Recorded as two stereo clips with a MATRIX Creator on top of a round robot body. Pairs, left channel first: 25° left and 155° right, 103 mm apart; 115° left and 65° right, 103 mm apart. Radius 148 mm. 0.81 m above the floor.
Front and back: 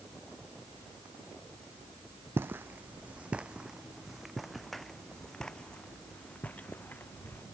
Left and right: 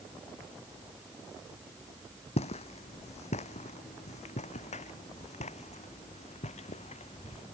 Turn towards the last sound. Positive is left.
turn(degrees=95)